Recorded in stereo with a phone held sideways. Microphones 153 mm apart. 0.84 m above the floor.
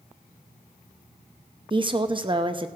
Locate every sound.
1.7 s a woman speaking: 35° right (ahead or behind), 0.7 m